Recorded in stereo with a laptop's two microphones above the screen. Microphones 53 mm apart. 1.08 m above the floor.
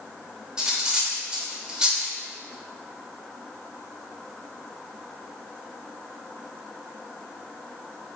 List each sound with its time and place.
0.6 s cutlery clinking: 15° right (ahead or behind), 2.5 m